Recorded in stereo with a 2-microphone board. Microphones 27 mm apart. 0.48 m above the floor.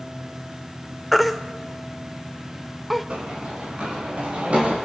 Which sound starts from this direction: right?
Running footsteps, at 3.1 s.